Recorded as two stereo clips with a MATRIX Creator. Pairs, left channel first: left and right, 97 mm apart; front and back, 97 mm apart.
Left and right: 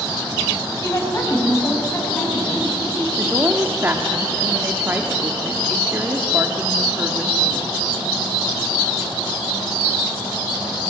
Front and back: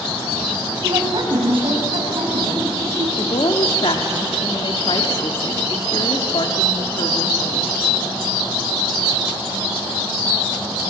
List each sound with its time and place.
0.8 s a woman speaking: 150° left, 5.5 m; by 3.1 s 155° left, 7 m
3.2 s a woman speaking: 25° right, 1.4 m